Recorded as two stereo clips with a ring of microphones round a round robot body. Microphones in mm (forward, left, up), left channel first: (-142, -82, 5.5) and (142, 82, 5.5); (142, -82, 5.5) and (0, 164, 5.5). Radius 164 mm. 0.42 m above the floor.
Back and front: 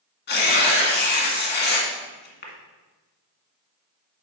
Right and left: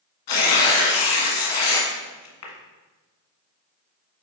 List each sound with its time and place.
0.3 s tearing paper: 90° right, 1.7 m